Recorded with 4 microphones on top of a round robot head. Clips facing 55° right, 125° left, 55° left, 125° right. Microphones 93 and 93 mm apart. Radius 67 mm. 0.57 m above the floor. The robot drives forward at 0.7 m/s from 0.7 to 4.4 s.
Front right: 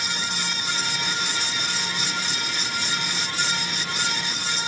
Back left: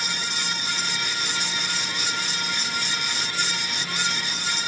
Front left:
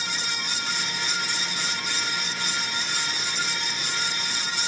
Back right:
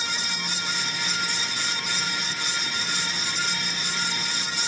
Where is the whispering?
No whispering in this recording.